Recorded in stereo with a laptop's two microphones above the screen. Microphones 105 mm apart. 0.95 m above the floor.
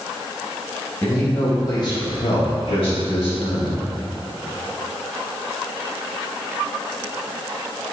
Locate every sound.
1.0 s a man speaking: 20° left (ahead or behind), 1.5 m; by 3.8 s 65° left (ahead or behind), 2.0 m